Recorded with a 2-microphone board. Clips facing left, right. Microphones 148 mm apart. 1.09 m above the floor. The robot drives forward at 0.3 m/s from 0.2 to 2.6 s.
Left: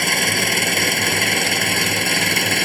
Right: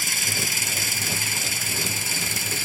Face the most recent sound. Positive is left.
turn(degrees=75)  # may be behind; listen again after turning